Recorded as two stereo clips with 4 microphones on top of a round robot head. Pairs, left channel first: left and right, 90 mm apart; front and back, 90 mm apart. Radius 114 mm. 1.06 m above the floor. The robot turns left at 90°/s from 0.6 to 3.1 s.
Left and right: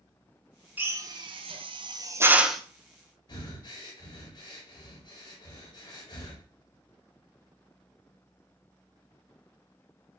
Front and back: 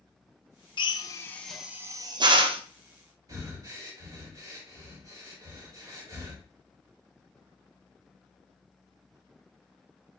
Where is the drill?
20° right, 0.9 m; by 2.6 s 175° left, 0.9 m.